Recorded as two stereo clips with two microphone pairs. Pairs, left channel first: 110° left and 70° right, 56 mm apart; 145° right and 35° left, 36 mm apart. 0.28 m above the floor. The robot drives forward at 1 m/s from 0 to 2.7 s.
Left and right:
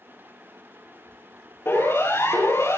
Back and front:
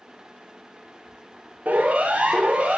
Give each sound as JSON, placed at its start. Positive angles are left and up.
{"t": 1.6, "sound": "a siren", "azimuth_deg": 75, "distance_m": 7.5}